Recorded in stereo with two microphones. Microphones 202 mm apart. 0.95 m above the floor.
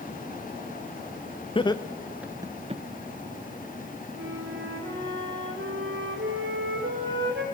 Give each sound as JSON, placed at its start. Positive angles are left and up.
{"t": 1.6, "sound": "laughter", "side_deg": 25, "distance_m": 0.7}
{"t": 4.1, "sound": "a flute", "side_deg": -70, "distance_m": 2.5}